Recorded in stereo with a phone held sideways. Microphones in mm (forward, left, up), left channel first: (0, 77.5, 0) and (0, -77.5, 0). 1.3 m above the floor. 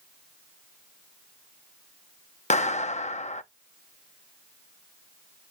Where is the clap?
50° left (ahead or behind), 0.7 m.